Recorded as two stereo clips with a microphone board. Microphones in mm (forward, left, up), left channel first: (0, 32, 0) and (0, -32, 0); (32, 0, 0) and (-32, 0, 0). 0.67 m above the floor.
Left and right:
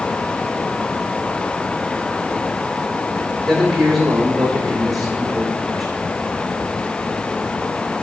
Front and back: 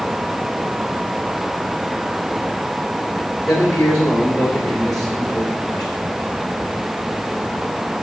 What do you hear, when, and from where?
3.5 s a man speaking: straight ahead, 2.5 m